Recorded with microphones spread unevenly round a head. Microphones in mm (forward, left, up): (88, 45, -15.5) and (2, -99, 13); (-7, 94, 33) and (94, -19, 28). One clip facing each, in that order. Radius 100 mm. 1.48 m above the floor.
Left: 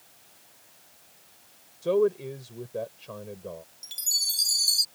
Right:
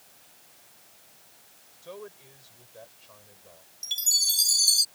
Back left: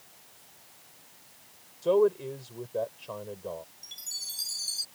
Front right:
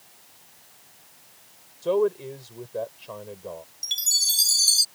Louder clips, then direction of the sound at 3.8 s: Right 3 dB, front right 9 dB; 60° right.